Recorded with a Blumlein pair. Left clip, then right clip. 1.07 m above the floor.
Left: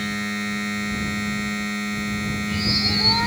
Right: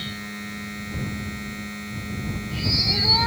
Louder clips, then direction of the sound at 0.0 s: Left 7 dB; 65° left.